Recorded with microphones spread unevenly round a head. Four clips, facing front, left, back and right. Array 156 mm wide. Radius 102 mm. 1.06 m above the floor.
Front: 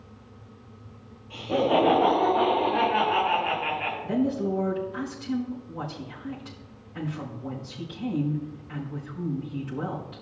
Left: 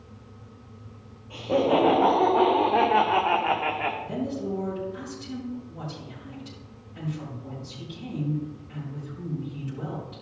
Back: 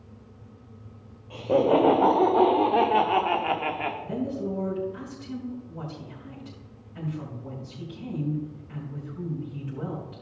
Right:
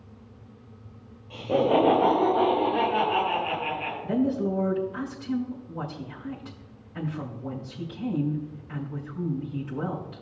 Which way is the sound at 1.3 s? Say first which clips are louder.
Even, back 2 dB; 175° right.